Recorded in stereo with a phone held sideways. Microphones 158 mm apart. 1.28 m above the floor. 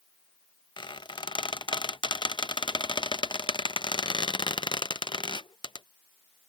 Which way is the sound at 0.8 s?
30° left (ahead or behind).